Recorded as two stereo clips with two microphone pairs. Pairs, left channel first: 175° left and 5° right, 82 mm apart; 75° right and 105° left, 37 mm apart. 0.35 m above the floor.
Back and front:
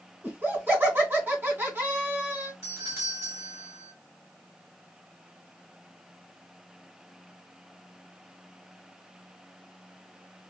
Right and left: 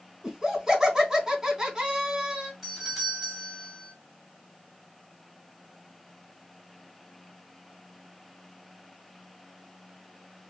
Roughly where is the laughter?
Ahead left.